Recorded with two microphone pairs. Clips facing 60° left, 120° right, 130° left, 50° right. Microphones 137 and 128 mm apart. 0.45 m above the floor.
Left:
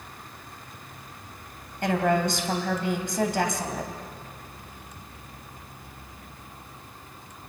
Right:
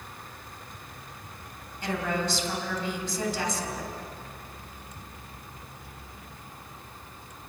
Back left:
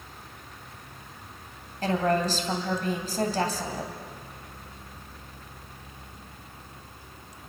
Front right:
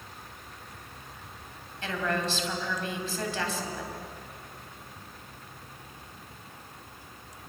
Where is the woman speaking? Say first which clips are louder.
Left 6 dB, back left 6 dB; 85° left, 3.5 m.